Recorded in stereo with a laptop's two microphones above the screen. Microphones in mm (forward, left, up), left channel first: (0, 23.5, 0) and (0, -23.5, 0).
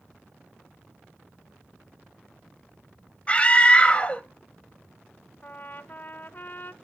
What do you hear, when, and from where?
3.3 s a scream: 25° left (ahead or behind), 0.9 m
5.4 s a trumpet: 40° left (ahead or behind), 0.7 m